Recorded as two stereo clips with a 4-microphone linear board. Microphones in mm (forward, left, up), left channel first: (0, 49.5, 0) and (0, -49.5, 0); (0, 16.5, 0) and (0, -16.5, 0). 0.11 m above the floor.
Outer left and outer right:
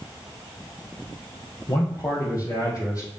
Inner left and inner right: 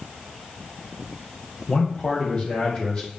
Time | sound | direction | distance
1.7 | a man speaking | 40° left (ahead or behind) | 4 m